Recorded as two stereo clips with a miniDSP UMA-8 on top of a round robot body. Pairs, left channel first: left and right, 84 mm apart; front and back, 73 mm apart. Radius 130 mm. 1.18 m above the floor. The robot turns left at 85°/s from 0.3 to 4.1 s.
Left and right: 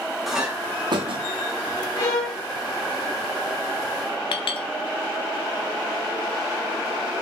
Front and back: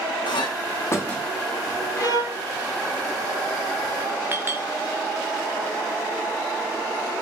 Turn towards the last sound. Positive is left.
turn(degrees=115)